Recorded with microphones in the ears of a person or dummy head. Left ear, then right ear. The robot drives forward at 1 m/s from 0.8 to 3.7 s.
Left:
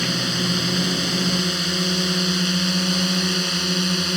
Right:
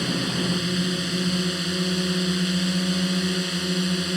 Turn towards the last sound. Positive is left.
turn(degrees=20)  # may be behind; listen again after turning